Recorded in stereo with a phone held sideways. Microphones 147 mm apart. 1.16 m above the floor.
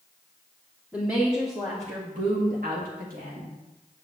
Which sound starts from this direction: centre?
A woman speaking, at 0.9 s.